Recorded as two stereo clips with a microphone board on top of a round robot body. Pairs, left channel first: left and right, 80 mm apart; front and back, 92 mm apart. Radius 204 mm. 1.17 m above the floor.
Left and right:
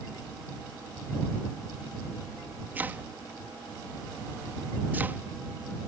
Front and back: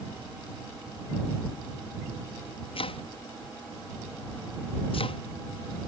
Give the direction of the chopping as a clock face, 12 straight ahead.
1 o'clock.